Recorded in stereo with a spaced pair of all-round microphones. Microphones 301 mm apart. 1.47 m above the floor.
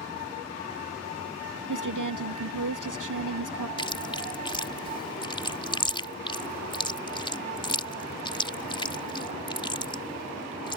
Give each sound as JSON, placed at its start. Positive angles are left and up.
{"t": 1.7, "sound": "a woman speaking", "side_deg": -80}
{"t": 3.8, "sound": "chewing", "side_deg": 15}